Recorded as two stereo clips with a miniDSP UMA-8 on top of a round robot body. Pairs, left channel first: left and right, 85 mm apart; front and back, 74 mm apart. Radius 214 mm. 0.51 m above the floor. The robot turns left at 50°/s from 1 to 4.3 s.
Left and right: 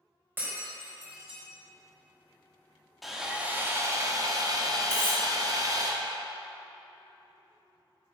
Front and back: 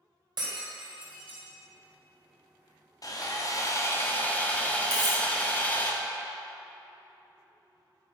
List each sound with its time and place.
0.4 s breaking glass: 155° right, 1.6 m; by 1.4 s straight behind, 1.6 m
3.0 s sawing: straight ahead, 1.4 m; by 5.9 s 65° right, 1.4 m
4.9 s cutlery clinking: 155° right, 1.9 m